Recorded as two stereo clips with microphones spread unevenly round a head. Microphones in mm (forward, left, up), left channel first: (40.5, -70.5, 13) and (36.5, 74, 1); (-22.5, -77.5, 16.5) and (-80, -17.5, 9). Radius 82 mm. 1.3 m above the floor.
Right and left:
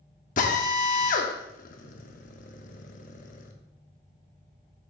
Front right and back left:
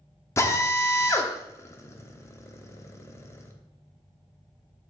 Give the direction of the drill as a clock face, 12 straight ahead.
3 o'clock.